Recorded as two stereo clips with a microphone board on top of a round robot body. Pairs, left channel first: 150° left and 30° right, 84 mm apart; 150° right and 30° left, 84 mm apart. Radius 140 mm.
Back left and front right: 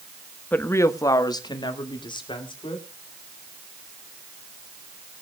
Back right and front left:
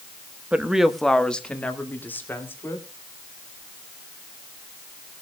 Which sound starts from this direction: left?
A woman speaking, at 0.5 s.